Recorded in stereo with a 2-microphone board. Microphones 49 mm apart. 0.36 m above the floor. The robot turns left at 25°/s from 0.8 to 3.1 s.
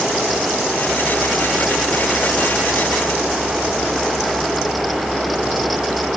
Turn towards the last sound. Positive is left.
No sound to turn to.